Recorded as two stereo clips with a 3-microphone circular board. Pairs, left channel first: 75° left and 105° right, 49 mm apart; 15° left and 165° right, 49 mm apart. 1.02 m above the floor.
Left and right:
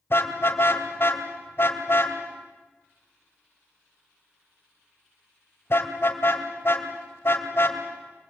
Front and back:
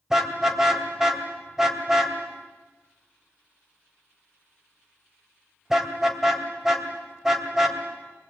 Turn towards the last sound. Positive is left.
turn(degrees=115)